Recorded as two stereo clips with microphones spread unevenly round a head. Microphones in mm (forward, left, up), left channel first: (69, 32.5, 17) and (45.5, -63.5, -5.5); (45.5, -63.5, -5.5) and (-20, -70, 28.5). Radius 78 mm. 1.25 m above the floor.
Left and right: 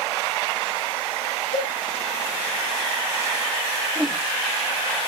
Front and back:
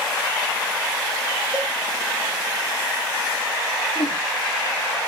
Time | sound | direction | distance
1.5 | a cowbell | 90° left | 7 m
4.0 | a whoosh | 10° right | 3.5 m